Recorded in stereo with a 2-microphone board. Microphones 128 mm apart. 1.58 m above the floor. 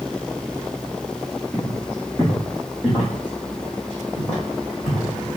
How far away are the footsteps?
About 3 m.